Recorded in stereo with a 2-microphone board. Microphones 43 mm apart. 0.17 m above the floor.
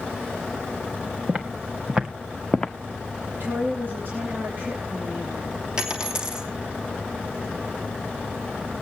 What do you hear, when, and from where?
1.3 s footsteps: 30° right (ahead or behind), 2.5 m; by 2.7 s 10° left (ahead or behind), 0.9 m
3.3 s a woman speaking: 55° right (ahead or behind), 3 m
5.8 s a dropped coin: 20° right (ahead or behind), 2.5 m